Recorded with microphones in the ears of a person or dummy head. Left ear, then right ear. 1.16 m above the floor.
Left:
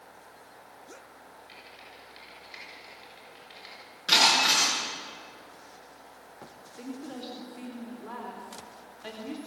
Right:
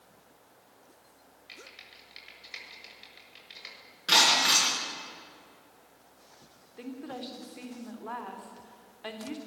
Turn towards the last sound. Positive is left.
turn(degrees=-20)  # may be behind; listen again after turning